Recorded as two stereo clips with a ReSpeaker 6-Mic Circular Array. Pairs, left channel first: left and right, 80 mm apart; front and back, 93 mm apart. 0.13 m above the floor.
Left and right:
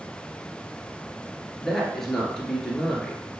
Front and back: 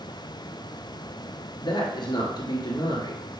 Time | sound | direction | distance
1.6 | a woman speaking | 5° left | 1.8 m